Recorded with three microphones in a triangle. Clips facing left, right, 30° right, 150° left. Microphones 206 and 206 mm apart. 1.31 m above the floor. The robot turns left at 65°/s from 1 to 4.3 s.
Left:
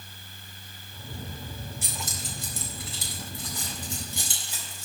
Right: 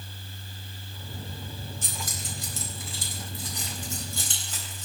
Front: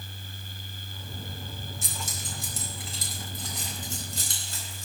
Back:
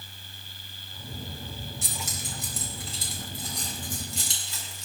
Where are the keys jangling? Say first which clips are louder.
Even, back 1 dB; 170° left, 4 m; by 4.8 s 10° left, 4 m.